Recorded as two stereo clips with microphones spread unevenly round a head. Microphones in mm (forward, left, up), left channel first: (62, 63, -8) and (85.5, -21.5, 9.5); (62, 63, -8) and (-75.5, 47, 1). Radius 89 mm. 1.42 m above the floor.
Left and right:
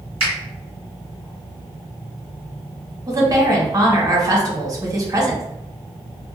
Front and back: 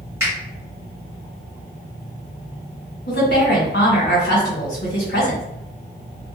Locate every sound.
0.2 s a finger snap: 100° right, 1.3 m
3.1 s a woman speaking: 25° right, 1.2 m